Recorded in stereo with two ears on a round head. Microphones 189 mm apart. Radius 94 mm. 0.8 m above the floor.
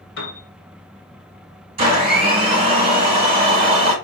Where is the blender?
30° right (ahead or behind), 2 m.